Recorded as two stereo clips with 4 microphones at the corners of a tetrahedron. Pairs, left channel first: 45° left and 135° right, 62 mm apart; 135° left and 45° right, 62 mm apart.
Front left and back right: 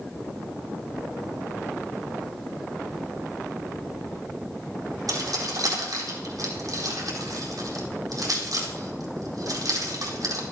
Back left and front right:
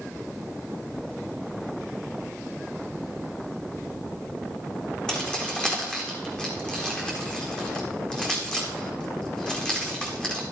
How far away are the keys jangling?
About 4.5 m.